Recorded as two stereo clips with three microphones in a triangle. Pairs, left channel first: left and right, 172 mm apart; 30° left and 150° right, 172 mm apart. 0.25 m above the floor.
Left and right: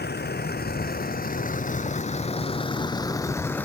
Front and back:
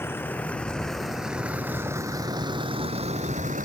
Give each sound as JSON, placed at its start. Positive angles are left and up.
{"t": 0.0, "sound": "a vehicle", "azimuth_deg": 105}